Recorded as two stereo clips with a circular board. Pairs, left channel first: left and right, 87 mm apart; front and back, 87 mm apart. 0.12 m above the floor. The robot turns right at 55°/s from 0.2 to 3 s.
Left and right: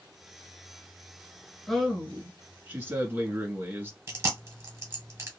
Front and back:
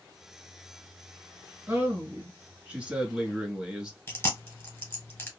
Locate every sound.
1.7 s a man speaking: 175° left, 1.1 m; by 4.0 s 110° right, 1.1 m
4.1 s chewing: 50° right, 1.3 m